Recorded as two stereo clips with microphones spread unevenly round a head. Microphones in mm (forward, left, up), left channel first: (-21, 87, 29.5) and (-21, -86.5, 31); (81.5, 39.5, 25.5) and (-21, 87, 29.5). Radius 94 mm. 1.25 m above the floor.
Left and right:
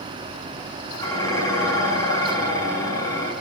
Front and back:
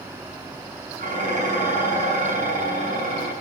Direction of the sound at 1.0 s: 165° left.